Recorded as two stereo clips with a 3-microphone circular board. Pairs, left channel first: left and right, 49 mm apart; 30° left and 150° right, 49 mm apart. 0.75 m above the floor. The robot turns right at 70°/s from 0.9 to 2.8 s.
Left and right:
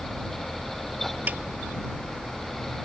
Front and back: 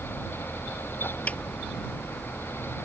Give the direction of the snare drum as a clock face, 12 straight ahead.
1 o'clock.